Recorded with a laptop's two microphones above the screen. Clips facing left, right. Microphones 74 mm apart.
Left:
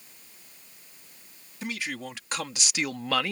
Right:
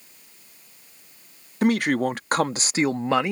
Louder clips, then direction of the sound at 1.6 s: Right 14 dB; 60° right (ahead or behind).